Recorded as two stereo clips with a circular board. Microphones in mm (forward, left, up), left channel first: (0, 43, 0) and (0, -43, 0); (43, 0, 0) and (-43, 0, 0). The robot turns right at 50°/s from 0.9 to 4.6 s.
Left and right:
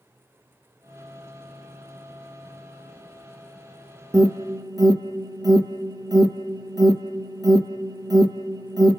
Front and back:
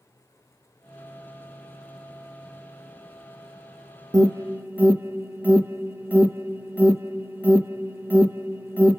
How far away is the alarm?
About 0.5 m.